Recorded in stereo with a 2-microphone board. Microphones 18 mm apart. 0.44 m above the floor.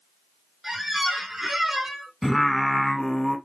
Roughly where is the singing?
Centre.